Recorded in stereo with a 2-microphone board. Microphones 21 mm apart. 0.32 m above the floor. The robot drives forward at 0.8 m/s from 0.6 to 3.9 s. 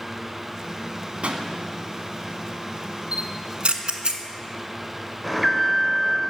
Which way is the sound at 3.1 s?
70° right (ahead or behind).